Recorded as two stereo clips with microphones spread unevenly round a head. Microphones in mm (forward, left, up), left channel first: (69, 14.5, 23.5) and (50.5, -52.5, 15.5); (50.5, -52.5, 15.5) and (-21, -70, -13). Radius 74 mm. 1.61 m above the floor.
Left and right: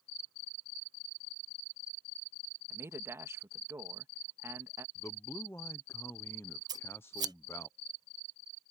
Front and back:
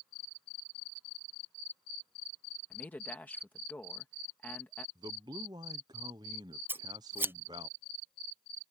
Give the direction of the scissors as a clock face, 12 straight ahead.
3 o'clock.